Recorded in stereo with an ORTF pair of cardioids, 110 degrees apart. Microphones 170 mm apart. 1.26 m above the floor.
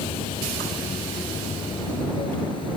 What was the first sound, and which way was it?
Running water, 30° left.